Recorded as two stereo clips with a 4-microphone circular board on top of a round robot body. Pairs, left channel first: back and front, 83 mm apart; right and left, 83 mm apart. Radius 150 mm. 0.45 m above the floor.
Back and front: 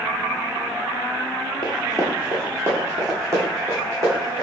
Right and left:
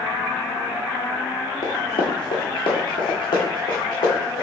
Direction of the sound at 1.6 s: 110° right.